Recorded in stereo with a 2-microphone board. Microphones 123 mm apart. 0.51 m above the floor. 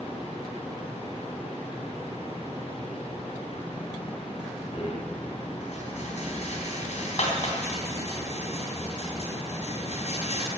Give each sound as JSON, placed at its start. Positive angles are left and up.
{"t": 4.7, "sound": "a rattle", "side_deg": 65, "distance_m": 3.5}